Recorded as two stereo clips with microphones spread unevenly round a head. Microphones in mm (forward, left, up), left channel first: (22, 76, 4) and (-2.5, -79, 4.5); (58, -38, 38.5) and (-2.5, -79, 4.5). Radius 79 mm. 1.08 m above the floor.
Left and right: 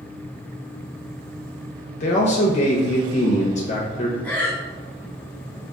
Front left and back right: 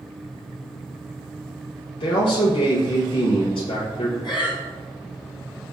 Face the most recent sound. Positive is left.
turn(degrees=5)